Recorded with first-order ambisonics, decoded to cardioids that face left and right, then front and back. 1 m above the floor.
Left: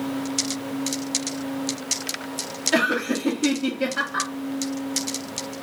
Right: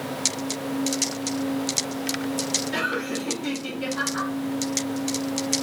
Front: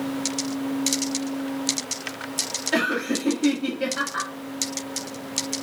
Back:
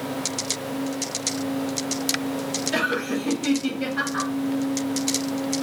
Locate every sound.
2.7 s laughter: 70° left, 1.0 m